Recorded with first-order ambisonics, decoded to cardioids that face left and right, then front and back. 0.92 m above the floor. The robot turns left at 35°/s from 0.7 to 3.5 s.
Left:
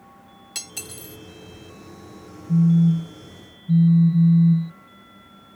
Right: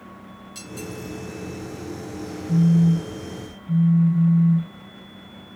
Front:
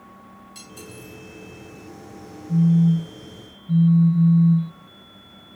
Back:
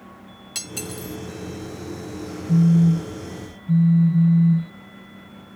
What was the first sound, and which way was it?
Cutlery clinking, 140° left.